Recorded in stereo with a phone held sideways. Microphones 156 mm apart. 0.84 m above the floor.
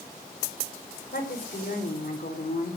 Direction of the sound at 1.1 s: 70° left (ahead or behind).